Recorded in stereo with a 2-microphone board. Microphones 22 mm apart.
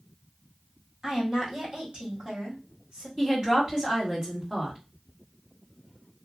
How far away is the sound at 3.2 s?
About 2 m.